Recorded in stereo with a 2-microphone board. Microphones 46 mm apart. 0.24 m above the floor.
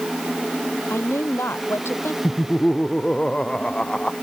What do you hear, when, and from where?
0.9 s a woman speaking: 65° left (ahead or behind)
2.2 s laughter: 20° left (ahead or behind)